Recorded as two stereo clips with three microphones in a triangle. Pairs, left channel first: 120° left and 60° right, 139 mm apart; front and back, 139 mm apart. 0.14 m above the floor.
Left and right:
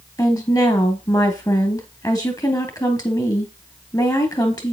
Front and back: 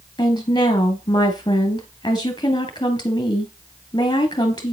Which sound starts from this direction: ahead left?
A woman speaking, at 0.2 s.